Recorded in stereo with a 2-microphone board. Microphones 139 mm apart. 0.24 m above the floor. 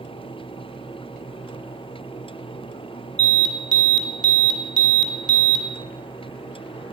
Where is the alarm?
35° right (ahead or behind), 1.4 m.